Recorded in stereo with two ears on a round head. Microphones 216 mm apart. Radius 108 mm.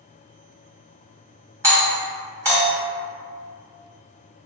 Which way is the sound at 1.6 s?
15° right (ahead or behind).